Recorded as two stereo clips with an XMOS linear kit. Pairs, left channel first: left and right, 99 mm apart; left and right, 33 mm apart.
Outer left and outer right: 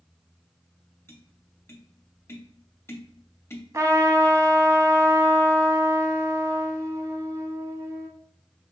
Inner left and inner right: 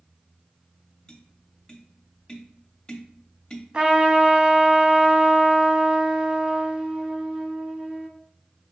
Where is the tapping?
25° left (ahead or behind), 0.6 m.